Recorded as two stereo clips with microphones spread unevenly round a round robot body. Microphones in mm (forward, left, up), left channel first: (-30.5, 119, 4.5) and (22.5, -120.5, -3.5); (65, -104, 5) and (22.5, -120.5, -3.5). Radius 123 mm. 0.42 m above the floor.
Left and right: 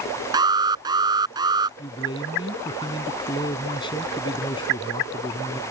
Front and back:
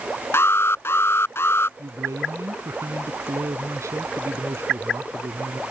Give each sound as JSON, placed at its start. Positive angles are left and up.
{"t": 0.3, "sound": "an alarm", "azimuth_deg": -5}
{"t": 1.8, "sound": "a man speaking", "azimuth_deg": 175}